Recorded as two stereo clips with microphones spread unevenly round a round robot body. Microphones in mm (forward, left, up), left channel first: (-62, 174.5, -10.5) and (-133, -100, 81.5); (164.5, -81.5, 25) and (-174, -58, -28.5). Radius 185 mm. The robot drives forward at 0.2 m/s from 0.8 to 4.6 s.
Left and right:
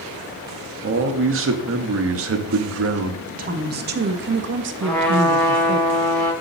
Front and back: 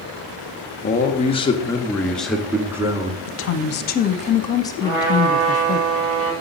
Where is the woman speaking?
35° right, 0.6 m; by 5.8 s 90° right, 0.5 m.